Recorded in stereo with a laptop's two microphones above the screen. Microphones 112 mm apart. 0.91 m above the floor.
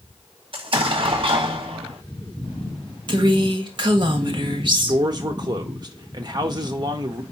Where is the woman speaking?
45° right (ahead or behind), 1.3 m.